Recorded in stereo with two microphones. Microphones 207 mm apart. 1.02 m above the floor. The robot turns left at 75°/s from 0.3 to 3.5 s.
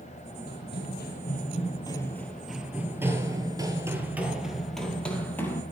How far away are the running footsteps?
About 1.8 m.